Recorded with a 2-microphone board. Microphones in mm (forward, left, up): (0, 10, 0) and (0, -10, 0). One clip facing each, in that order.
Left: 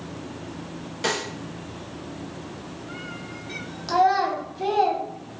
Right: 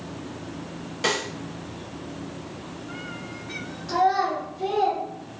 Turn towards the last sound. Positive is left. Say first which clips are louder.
# left 2 dB
turn(degrees=55)  # may be behind; listen again after turning